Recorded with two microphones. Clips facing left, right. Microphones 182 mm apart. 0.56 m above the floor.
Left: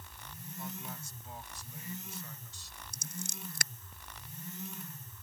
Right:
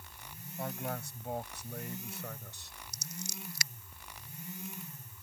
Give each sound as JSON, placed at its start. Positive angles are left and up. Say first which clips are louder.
{"t": 0.6, "sound": "a man speaking", "louder": "right 7 dB", "side_deg": -70}
{"t": 2.9, "sound": "scissors", "louder": "left 1 dB", "side_deg": 50}